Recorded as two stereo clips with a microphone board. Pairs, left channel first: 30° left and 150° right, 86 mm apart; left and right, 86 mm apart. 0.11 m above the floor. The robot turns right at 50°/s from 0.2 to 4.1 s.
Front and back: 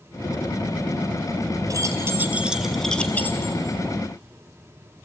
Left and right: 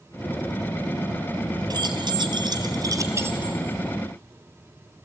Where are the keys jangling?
115° right, 1.5 m; by 3.6 s 20° right, 1.5 m.